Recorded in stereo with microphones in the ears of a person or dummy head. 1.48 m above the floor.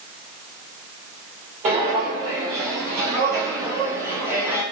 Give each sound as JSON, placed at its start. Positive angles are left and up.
{"t": 1.6, "sound": "footsteps", "side_deg": -25, "distance_m": 1.7}